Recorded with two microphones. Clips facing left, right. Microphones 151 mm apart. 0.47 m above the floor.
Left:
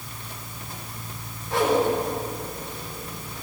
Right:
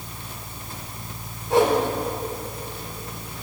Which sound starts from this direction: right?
A whoosh, at 1.5 s.